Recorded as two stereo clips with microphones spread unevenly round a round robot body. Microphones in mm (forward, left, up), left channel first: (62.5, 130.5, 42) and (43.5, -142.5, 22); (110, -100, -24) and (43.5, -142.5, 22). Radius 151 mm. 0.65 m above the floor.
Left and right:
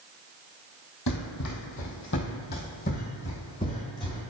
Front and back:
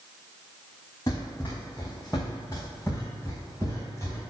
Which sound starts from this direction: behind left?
Running footsteps, at 1.1 s.